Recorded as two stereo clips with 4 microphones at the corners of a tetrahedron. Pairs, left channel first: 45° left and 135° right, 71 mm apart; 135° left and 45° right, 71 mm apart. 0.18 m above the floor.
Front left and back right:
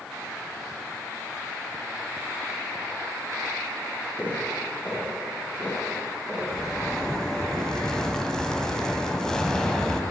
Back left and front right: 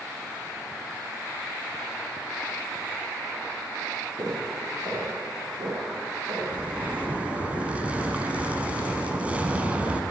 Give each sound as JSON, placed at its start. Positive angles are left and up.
{"t": 4.2, "sound": "footsteps", "azimuth_deg": -20, "distance_m": 4.5}
{"t": 6.5, "sound": "a zipper", "azimuth_deg": -20, "distance_m": 1.3}